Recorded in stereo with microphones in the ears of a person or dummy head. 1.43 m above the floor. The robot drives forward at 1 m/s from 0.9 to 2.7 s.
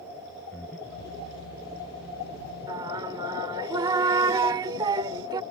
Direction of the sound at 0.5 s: 10° left (ahead or behind).